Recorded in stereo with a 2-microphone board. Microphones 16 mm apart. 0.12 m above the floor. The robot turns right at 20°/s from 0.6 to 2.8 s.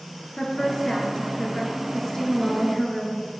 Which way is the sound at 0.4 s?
85° left.